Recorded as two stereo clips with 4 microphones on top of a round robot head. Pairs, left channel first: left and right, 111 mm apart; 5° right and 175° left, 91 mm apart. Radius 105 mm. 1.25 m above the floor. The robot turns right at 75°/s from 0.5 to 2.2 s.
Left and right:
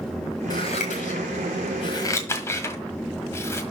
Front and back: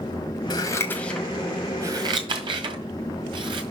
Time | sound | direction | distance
0.5 | scissors | 25° left | 1.6 m